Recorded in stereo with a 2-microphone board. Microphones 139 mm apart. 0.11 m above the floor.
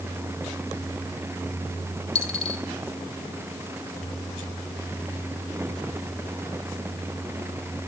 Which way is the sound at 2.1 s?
5° left (ahead or behind).